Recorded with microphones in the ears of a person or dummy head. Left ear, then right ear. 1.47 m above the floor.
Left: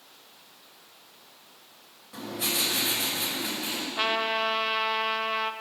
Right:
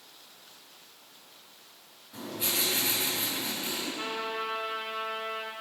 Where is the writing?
35° left (ahead or behind), 3 m.